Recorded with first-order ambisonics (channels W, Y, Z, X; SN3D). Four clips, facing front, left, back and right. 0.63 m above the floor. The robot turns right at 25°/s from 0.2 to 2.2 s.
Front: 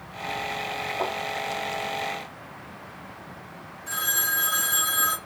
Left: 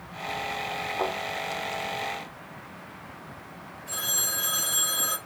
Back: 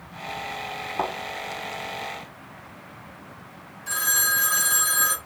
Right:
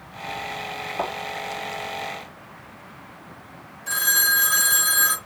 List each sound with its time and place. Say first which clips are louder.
1.0 s a thud: right 1 dB, back 2 dB; 160° right, 4 m
3.9 s a phone ringing: right 9 dB, back 3 dB; 120° right, 4 m